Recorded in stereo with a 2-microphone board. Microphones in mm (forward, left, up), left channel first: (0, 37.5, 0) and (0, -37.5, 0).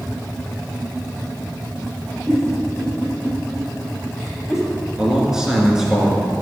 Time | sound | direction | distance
2.3 | a giggle | 10° right (ahead or behind) | 3.5 m
5.0 | a man speaking | 5° right (ahead or behind) | 2.5 m